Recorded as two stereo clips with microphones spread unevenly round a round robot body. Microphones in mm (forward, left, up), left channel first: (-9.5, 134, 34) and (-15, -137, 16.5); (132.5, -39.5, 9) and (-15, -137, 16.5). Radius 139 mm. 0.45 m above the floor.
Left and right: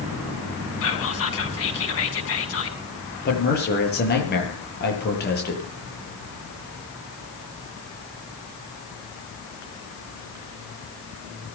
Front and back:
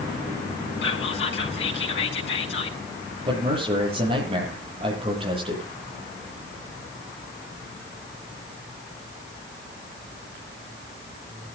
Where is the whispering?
45° left, 6 m.